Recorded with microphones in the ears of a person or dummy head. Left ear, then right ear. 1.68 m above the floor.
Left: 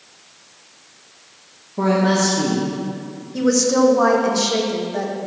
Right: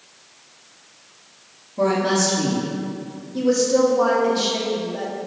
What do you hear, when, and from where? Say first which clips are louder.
1.8 s a woman speaking: left 1 dB; 25° left (ahead or behind), 1.0 m
3.3 s a woman speaking: left 1 dB; 55° left (ahead or behind), 1.1 m